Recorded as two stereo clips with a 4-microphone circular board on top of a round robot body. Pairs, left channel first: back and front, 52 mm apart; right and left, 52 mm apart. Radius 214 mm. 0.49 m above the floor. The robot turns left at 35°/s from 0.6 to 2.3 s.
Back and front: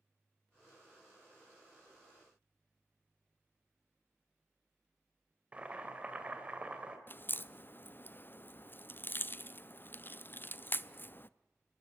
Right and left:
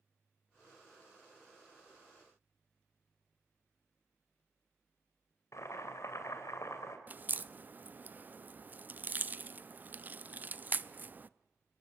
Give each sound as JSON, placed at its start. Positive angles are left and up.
{"t": 5.5, "sound": "boiling", "azimuth_deg": -65, "distance_m": 2.5}
{"t": 7.1, "sound": "a crack", "azimuth_deg": 140, "distance_m": 0.8}